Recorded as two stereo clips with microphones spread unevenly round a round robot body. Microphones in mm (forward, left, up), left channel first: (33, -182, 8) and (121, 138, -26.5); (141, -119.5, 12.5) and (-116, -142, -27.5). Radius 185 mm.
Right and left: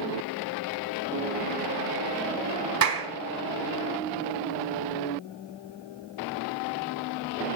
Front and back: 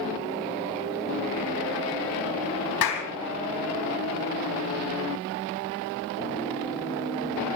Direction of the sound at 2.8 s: 40° left.